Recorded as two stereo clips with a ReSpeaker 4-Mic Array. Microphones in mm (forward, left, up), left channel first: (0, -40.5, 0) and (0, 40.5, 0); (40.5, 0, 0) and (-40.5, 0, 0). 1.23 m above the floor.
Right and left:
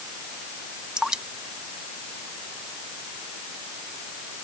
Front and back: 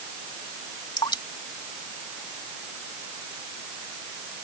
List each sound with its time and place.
1.0 s dripping: 10° left